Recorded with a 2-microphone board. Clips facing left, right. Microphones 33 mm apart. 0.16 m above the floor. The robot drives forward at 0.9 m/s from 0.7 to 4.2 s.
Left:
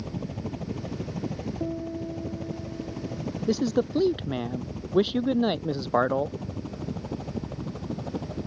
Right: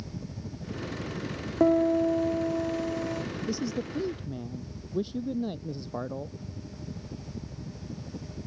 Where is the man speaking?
50° left (ahead or behind); by 6.4 s 55° left (ahead or behind).